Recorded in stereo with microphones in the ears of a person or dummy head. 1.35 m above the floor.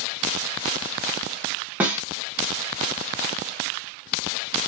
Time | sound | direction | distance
1.8 | a snare drum | 10° right (ahead or behind) | 0.9 m